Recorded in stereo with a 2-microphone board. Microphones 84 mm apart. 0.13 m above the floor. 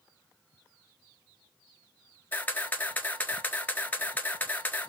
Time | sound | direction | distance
2.3 | a camera shutter | 25° left (ahead or behind) | 0.6 m